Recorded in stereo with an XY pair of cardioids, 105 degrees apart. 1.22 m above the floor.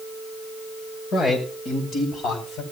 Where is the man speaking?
65° left, 6 m; by 2.6 s 55° left, 7 m.